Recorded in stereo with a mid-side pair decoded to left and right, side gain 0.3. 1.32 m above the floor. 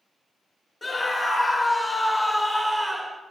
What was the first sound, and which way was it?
A scream, 40° left.